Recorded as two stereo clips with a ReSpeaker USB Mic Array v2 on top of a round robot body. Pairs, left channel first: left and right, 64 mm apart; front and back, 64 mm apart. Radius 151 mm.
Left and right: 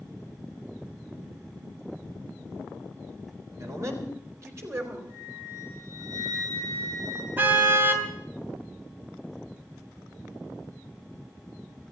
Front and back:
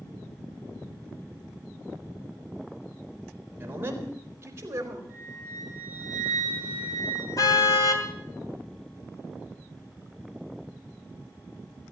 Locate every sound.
3.6 s a man speaking: 125° right, 4 m; by 5.0 s 140° right, 4.5 m
5.1 s a flute: 115° right, 8.5 m
7.4 s a car horn: 30° right, 3 m